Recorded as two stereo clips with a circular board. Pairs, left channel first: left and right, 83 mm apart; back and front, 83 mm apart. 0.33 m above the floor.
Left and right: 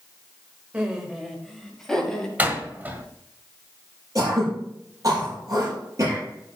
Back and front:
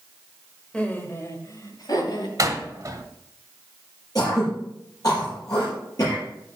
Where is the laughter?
130° right, 1.2 m; by 2.3 s 170° left, 2.5 m.